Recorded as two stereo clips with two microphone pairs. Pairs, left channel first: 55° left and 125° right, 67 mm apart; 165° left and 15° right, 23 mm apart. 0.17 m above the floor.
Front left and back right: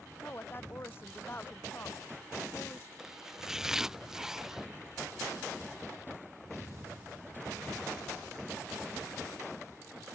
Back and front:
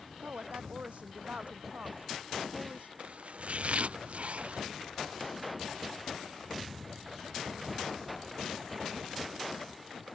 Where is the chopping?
45° right.